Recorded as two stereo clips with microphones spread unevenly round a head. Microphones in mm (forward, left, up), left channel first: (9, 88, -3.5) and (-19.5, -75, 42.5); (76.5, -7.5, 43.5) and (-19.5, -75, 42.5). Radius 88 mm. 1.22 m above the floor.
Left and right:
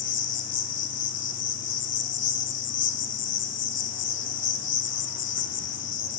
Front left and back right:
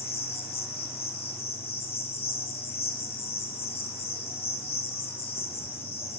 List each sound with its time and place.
0.0 s an insect: 85° left, 1.8 m